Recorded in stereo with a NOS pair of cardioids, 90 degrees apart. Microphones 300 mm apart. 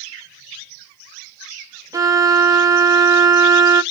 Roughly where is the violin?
Ahead.